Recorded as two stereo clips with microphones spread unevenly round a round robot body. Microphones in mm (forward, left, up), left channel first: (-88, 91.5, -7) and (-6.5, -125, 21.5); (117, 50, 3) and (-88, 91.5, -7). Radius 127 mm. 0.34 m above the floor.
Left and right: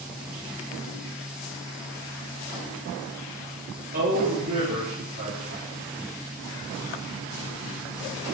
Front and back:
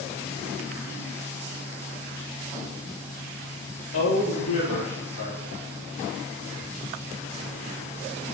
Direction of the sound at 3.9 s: 10° right.